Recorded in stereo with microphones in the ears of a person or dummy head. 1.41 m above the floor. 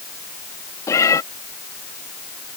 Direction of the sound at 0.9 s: 15° left (ahead or behind).